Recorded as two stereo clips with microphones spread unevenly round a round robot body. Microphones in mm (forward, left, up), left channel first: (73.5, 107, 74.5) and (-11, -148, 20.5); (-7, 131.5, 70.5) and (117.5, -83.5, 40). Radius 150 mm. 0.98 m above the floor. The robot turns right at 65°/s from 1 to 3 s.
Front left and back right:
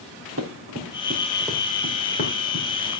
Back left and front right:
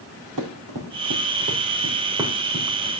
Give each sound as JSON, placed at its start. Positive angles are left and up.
{"t": 0.4, "sound": "running footsteps", "azimuth_deg": -65, "distance_m": 3.5}